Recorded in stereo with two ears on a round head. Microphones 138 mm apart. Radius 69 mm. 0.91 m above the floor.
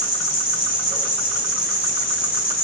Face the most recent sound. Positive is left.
turn(degrees=70)  # may be behind; listen again after turning